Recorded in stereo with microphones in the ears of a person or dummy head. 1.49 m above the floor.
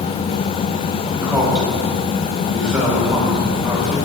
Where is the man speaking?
5° right (ahead or behind), 3 m.